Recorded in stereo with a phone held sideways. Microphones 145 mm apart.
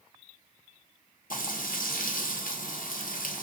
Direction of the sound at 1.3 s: 70° left (ahead or behind).